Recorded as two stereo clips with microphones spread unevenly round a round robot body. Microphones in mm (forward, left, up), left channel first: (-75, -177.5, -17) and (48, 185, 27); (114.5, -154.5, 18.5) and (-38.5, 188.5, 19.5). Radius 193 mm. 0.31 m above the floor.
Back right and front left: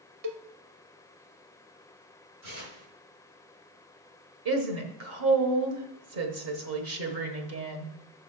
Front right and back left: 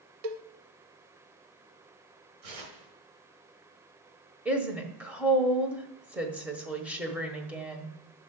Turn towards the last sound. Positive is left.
turn(degrees=30)